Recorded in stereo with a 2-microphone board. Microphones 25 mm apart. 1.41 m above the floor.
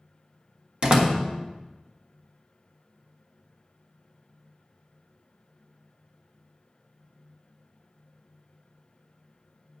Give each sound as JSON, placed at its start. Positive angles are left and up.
{"t": 0.8, "sound": "a door slam", "side_deg": -40, "distance_m": 1.4}